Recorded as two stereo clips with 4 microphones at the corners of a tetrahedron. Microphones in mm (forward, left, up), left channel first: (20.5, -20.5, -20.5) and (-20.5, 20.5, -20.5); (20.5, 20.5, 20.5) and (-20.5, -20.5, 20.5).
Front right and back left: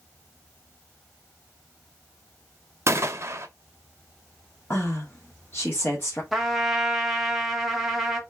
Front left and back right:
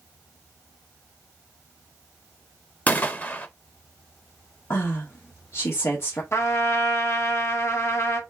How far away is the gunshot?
About 0.7 m.